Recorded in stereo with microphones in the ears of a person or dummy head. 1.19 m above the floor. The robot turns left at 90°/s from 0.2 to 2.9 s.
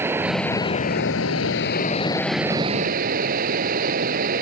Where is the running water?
170° right; by 4.4 s 50° right.